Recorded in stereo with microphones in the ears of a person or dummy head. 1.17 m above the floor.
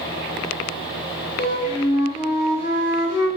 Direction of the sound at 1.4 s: 30° left (ahead or behind).